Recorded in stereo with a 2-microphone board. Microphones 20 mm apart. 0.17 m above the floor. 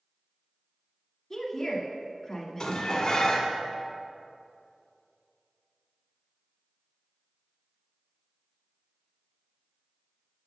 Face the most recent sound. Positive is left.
turn(degrees=35)  # may be behind; listen again after turning